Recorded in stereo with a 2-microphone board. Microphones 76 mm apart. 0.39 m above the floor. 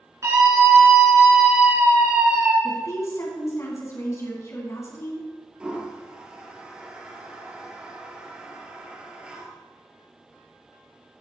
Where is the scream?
40° right (ahead or behind), 4.5 m; by 2.5 s 20° right (ahead or behind), 5 m.